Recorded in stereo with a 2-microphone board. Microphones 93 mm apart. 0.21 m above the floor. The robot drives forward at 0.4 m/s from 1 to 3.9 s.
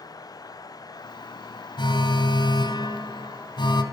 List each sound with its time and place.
1.8 s an alarm: 50° left (ahead or behind), 2.5 m